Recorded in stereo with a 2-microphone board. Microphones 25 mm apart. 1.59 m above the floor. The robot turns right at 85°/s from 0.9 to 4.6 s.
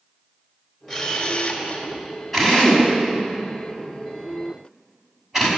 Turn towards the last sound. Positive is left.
turn(degrees=-15)  # may be behind; listen again after turning